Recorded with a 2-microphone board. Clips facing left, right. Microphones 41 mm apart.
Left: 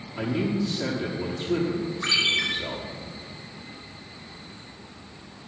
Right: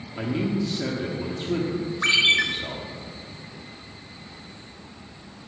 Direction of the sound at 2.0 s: 60° right (ahead or behind).